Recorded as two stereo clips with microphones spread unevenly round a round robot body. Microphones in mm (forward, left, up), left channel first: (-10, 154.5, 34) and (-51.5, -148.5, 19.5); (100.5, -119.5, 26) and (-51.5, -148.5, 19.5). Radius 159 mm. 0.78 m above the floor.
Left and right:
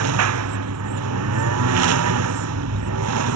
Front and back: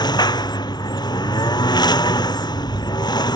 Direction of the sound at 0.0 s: 50° right.